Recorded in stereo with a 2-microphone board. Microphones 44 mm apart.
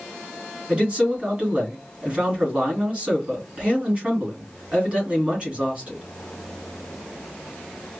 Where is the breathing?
No breathing in this recording.